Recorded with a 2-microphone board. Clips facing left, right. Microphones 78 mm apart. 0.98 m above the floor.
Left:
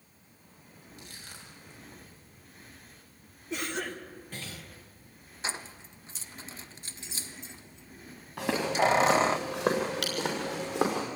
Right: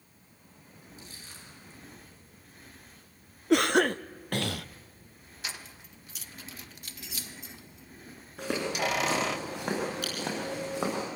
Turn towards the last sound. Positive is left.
turn(degrees=75)  # may be behind; listen again after turning